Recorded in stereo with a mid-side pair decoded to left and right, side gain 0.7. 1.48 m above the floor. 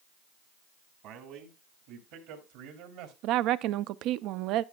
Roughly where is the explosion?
No explosion in this recording.